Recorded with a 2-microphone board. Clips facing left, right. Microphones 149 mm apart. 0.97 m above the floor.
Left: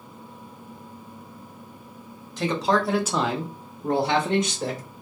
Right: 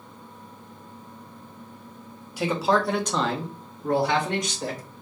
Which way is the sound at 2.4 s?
10° right (ahead or behind).